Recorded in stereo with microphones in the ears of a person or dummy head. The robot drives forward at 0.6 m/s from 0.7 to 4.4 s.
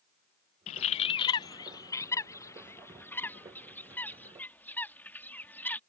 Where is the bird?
35° left (ahead or behind); by 5.8 s 10° left (ahead or behind).